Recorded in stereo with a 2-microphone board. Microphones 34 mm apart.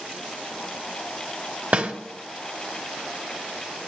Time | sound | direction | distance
1.7 | a snare drum | 45° right (ahead or behind) | 1.3 m